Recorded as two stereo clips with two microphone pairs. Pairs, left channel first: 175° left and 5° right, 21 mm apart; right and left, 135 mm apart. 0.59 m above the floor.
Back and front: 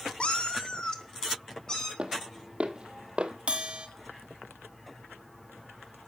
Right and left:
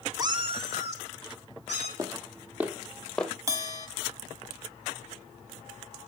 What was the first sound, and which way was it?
A cat meowing, 155° left.